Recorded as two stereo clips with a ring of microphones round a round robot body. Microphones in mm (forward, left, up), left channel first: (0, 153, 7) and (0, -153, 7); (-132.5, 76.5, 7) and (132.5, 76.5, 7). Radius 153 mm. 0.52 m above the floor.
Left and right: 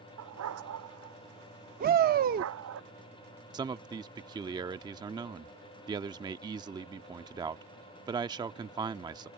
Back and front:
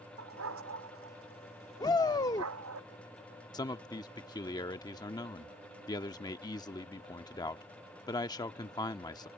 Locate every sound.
0.2 s a dog barking: 50° right; by 2.8 s 45° right
1.8 s a shout: 115° right
3.5 s a man speaking: 135° right